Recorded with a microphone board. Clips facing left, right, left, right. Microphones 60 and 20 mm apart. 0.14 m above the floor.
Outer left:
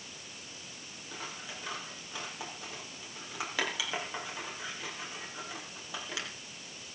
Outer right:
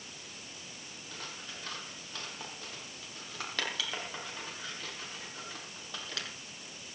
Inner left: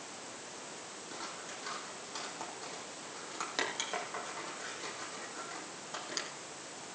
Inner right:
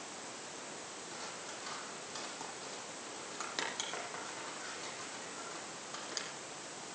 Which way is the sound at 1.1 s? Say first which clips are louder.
Outer left 3 dB, inner left 3 dB; 10° left (ahead or behind).